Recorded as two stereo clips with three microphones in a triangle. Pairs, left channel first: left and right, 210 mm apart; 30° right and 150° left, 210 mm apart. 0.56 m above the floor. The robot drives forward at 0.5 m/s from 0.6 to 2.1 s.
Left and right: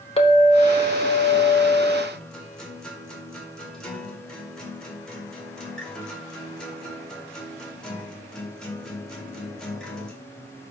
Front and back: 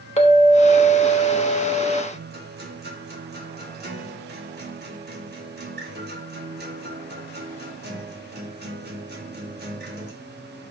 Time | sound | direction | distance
0.2 | a clink | 25° left | 1.3 m
2.1 | a guitar | 175° left | 2 m